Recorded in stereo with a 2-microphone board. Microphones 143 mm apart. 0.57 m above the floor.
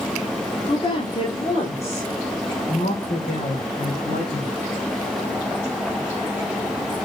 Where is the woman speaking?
30° left (ahead or behind), 1.6 m; by 4.5 s 70° left (ahead or behind), 3.5 m.